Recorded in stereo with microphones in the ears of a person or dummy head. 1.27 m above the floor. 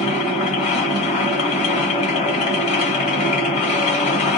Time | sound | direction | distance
0.0 | a machine running | 35° left (ahead or behind) | 1.5 m